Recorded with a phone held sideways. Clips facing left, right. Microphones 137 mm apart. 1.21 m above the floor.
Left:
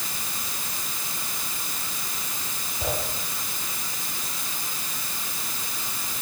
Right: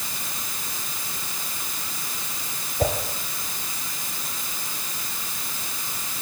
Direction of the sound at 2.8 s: 55° right (ahead or behind).